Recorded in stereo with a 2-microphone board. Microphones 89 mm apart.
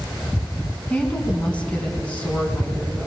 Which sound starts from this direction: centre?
A woman speaking, at 0.9 s.